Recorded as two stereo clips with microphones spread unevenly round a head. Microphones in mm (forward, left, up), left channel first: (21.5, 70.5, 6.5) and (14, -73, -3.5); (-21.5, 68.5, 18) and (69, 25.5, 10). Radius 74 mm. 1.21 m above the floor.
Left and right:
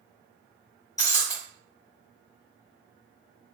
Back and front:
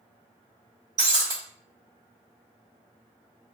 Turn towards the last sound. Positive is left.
turn(degrees=25)